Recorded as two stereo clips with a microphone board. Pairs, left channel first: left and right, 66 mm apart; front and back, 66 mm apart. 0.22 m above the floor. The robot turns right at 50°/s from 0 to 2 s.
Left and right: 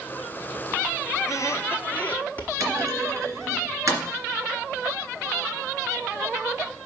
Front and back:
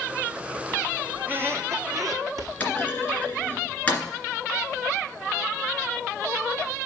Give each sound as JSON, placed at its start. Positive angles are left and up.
{"t": 1.1, "sound": "a squeak", "azimuth_deg": 115, "distance_m": 0.9}
{"t": 2.6, "sound": "a clunk", "azimuth_deg": -65, "distance_m": 2.0}